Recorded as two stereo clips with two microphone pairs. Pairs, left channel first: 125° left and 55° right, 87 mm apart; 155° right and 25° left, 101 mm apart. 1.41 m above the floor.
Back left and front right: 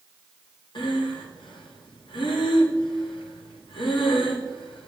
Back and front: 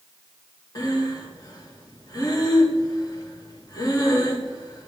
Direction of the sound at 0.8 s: 150° left.